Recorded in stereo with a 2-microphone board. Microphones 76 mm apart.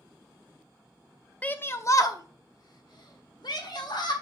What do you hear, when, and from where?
1.4 s a shout: 20° left (ahead or behind), 0.6 m; by 4.1 s 65° left (ahead or behind), 1.9 m